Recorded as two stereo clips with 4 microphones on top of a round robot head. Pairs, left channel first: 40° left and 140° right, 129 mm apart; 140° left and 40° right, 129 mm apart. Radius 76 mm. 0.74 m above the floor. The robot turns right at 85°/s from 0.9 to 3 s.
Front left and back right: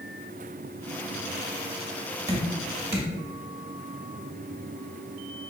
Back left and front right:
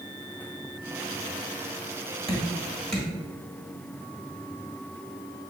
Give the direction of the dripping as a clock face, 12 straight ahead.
6 o'clock.